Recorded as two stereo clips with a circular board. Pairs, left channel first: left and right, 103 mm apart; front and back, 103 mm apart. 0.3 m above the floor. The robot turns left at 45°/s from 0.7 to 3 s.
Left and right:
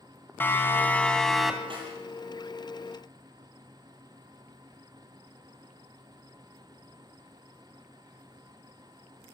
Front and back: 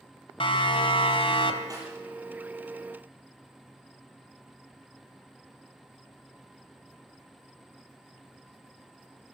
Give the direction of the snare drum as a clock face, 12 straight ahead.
4 o'clock.